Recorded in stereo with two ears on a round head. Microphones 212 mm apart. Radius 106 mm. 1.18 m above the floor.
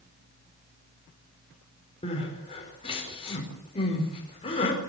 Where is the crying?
25° left (ahead or behind), 5 m.